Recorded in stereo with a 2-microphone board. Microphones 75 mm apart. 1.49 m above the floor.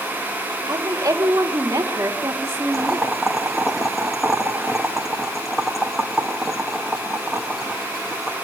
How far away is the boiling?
About 2 m.